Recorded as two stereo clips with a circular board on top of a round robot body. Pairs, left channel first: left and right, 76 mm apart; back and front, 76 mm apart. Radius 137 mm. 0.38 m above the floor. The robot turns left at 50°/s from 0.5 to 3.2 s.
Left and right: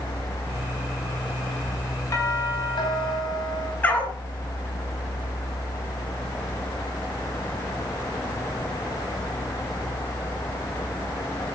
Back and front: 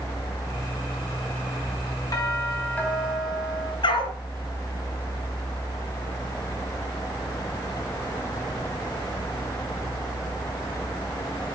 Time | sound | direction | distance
2.1 | a doorbell | 140° left | 4.5 m
3.8 | a dog barking | 155° left | 2.5 m